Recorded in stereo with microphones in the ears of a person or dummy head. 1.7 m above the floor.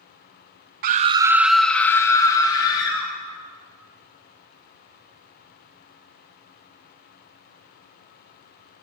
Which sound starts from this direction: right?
A scream, at 0.8 s.